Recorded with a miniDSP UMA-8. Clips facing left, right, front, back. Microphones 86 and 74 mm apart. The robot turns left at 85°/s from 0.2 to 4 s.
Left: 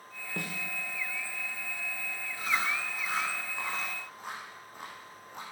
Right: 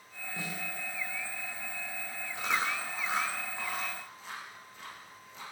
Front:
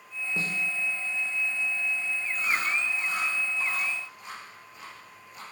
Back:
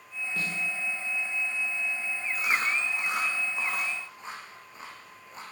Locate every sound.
0.4 s a snare drum: 65° left, 2.5 m; by 0.6 s 45° left, 2.5 m
2.4 s chewing: 95° right, 5 m; by 5.4 s 125° left, 5 m